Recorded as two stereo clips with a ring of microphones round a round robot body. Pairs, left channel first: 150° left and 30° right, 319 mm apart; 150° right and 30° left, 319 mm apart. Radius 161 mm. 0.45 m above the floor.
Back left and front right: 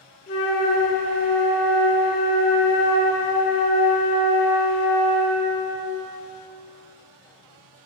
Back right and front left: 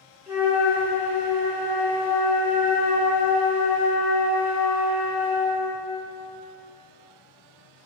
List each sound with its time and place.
0.3 s a flute: 105° left, 1.1 m